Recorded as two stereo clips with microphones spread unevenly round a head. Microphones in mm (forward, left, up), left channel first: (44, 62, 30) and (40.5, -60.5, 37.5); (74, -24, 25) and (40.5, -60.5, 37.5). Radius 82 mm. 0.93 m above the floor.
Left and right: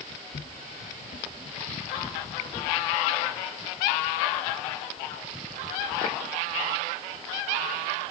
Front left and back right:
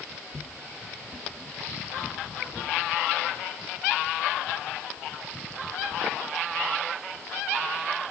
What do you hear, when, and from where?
0.3 s footsteps: 125° left, 4.5 m; by 2.7 s 155° left, 6.5 m